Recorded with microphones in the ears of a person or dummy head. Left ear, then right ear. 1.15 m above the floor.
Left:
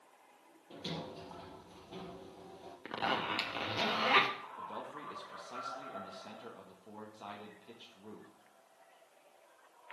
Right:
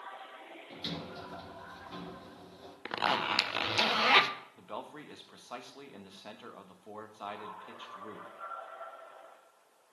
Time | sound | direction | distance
0.7 | a sliding door | 50° right (ahead or behind) | 3 m
2.9 | a zipper | 20° right (ahead or behind) | 0.6 m
4.6 | a man speaking | 45° right (ahead or behind) | 1.3 m